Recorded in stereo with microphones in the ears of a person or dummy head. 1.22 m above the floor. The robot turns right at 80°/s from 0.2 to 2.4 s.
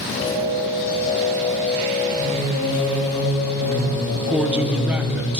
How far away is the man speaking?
About 0.5 m.